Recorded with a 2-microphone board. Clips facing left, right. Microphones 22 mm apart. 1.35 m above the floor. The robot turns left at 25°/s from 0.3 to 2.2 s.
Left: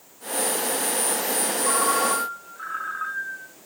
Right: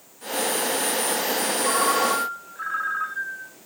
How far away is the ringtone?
About 3.5 m.